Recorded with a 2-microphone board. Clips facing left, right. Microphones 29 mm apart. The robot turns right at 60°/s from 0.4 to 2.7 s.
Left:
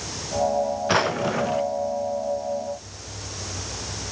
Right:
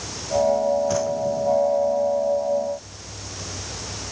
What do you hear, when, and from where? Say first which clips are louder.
0.9 s a drawer: left 1 dB; 55° left; by 1.7 s 100° left